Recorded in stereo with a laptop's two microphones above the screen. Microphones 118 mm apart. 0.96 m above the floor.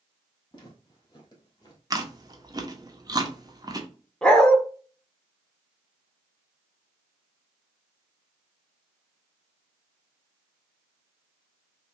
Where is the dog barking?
5° left (ahead or behind), 0.7 m.